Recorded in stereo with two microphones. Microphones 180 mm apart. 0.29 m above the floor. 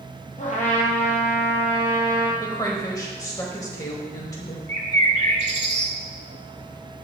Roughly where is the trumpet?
Left.